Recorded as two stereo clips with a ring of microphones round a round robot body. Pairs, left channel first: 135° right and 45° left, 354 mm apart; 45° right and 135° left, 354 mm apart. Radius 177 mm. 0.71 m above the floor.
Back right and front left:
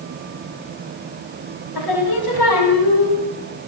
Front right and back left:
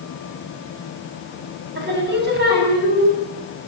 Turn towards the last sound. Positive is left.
turn(degrees=-165)